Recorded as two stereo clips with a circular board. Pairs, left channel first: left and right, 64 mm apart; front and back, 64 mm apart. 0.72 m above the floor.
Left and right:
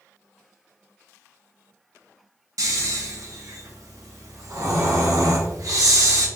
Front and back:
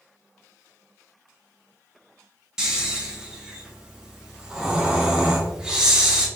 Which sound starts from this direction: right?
Snoring, at 2.6 s.